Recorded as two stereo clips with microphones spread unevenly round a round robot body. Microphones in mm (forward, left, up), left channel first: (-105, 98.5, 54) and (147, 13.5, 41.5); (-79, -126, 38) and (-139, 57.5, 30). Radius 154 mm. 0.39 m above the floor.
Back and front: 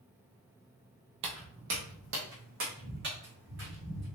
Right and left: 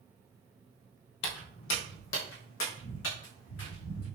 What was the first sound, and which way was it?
Footsteps, 75° right.